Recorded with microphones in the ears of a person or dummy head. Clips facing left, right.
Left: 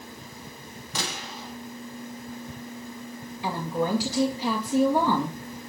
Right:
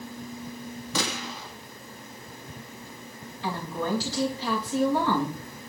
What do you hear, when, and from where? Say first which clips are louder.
0.9 s a gunshot: right 3 dB; 65° right (ahead or behind), 1.5 m
3.4 s a woman speaking: left 3 dB; 15° left (ahead or behind), 2.5 m